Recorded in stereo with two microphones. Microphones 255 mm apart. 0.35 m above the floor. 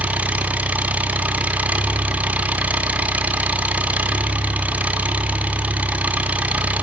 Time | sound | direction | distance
0.0 | an engine running | 5° right (ahead or behind) | 1.6 m